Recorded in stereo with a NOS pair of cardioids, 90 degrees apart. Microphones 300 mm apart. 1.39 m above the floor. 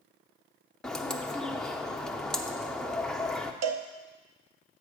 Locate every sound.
0.8 s a bird: 5° left, 0.6 m
3.6 s a cowbell: 60° right, 0.8 m